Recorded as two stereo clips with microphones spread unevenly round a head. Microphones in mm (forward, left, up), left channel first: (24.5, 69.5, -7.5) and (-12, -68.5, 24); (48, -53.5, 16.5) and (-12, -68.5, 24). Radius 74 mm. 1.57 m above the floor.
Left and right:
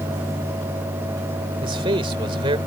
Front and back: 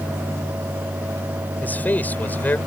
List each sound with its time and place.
1.6 s a man speaking: 50° right